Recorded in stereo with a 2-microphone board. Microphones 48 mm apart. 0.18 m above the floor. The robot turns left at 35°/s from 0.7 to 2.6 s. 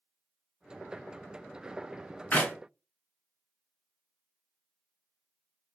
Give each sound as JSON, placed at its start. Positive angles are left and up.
{"t": 2.3, "sound": "a clap", "side_deg": 35, "distance_m": 1.6}